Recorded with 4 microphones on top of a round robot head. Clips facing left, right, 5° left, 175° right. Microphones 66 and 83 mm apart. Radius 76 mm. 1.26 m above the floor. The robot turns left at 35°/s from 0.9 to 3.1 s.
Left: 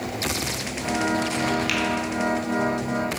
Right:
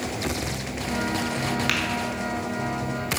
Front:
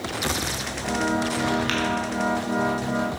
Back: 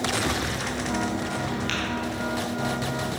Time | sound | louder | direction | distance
1.7 | tapping | even, front 4 dB | 50° right | 3 m